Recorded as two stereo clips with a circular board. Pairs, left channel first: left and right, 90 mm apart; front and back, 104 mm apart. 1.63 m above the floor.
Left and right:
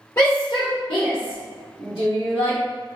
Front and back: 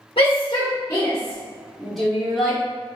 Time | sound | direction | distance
0.2 | a shout | 30° left | 0.6 m